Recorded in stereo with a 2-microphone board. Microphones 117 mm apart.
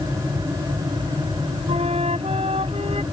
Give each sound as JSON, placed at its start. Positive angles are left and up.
{"t": 1.7, "sound": "a flute", "side_deg": -60}